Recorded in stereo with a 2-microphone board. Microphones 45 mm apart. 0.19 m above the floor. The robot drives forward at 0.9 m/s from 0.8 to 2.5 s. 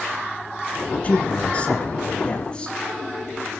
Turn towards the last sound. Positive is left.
turn(degrees=20)  # may be behind; listen again after turning